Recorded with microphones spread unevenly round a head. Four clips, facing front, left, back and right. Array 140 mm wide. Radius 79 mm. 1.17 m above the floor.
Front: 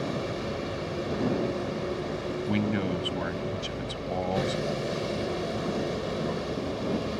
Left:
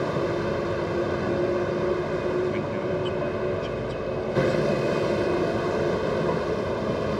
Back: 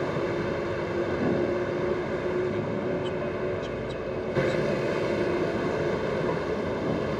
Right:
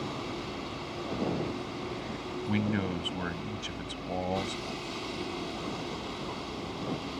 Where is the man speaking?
25° right.